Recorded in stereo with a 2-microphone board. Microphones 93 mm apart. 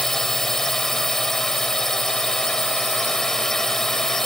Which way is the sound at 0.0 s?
5° left (ahead or behind).